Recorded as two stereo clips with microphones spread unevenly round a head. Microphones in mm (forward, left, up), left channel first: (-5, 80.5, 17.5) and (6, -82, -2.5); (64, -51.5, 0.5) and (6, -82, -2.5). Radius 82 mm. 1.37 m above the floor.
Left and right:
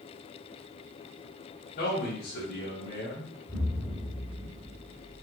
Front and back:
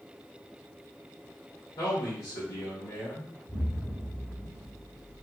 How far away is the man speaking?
About 1.2 m.